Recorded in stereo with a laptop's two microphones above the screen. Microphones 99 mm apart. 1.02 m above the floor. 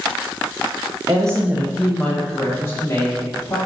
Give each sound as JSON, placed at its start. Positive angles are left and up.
{"t": 1.1, "sound": "a woman speaking", "side_deg": -45, "distance_m": 0.5}